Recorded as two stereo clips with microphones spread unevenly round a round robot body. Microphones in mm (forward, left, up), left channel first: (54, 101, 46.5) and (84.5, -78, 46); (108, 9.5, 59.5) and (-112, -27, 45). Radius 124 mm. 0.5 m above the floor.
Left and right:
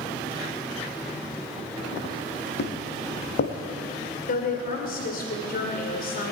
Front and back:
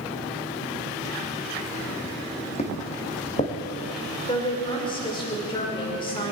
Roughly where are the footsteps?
Left.